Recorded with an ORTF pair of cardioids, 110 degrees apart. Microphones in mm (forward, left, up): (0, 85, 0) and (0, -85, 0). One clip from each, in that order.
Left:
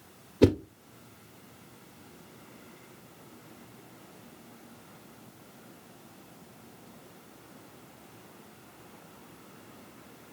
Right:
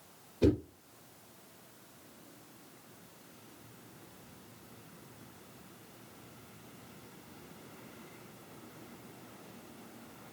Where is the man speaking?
I don't hear a man speaking.